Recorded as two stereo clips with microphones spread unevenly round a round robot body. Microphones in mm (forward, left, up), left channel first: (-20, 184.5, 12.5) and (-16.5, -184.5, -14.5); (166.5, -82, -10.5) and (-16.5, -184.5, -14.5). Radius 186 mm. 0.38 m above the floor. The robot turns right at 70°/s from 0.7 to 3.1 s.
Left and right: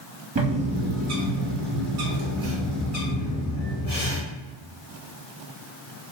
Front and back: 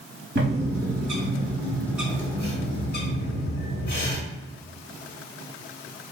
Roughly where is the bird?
Behind right.